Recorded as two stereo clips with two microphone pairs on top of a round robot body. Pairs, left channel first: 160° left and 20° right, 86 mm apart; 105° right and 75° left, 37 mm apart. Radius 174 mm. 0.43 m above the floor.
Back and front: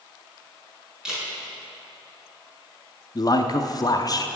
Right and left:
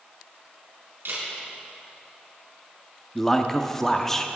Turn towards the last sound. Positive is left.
turn(degrees=175)